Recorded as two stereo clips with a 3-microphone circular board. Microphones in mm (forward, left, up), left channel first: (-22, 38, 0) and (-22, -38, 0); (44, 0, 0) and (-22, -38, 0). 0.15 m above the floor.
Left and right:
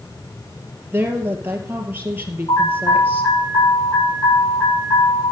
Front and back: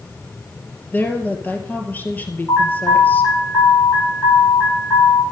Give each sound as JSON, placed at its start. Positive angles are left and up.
{"t": 0.9, "sound": "a woman speaking", "azimuth_deg": -30, "distance_m": 3.0}
{"t": 2.5, "sound": "an alarm", "azimuth_deg": 80, "distance_m": 10.0}